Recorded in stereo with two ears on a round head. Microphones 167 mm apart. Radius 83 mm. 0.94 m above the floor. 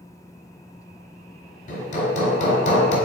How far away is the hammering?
About 1.2 m.